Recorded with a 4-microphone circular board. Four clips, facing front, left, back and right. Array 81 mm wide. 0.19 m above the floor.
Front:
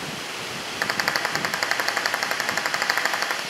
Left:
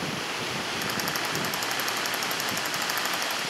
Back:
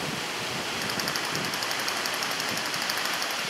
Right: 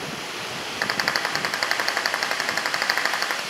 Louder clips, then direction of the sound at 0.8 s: Right 9 dB, front 11 dB; 35° right.